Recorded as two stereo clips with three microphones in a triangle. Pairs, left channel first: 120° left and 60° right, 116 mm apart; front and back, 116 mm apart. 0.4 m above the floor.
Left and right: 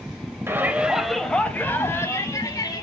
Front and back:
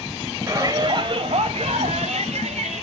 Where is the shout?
125° right, 1.7 m; by 2.8 s 175° left, 3.5 m.